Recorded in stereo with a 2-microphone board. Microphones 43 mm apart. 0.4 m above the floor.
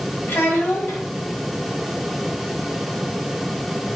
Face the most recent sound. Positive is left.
turn(degrees=60)  # may be behind; listen again after turning